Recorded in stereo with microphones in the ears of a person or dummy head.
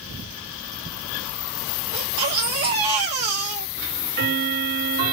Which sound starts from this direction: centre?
A baby crying, at 1.9 s.